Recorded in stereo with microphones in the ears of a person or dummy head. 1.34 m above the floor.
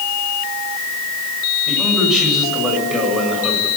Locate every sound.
1.7 s a man speaking: 5° right (ahead or behind), 7.5 m